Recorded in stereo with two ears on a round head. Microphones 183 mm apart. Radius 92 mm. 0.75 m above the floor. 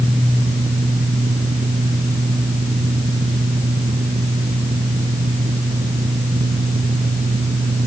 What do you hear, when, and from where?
Only background noise.